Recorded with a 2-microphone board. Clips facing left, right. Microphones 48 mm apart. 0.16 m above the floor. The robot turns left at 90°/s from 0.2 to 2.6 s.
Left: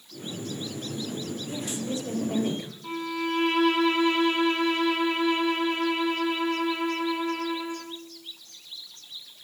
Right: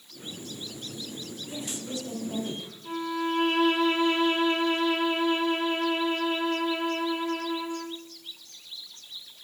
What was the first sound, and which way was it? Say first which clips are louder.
A woman speaking: left 3 dB; 165° right.